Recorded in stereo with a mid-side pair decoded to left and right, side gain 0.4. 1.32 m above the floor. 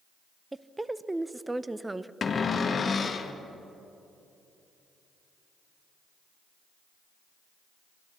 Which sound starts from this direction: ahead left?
A cupboard door, at 2.2 s.